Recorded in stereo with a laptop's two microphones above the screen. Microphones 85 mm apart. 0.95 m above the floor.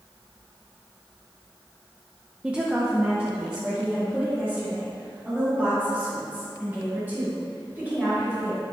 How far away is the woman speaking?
About 0.5 m.